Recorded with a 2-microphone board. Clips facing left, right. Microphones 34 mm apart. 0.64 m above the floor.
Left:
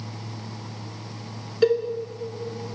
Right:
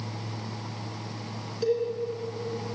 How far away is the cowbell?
About 2.5 m.